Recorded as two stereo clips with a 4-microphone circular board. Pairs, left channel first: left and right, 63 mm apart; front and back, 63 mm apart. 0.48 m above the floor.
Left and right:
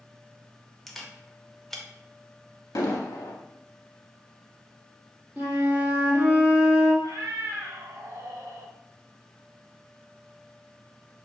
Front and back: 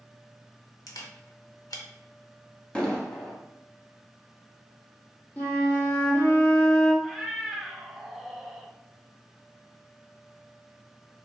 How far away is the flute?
About 0.9 m.